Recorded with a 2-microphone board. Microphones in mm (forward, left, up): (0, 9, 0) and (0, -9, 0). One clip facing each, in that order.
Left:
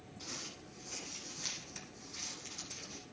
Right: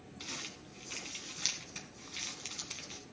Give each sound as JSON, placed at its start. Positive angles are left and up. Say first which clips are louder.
{"t": 0.2, "sound": "crumpling", "louder": "right 2 dB", "side_deg": -50, "distance_m": 1.3}